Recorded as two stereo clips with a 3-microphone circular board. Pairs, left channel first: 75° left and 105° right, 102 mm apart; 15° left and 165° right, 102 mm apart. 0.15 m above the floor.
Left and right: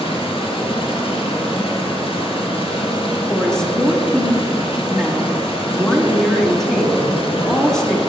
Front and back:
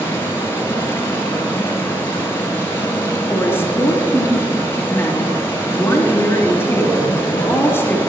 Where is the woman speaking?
Straight ahead, 1.5 m.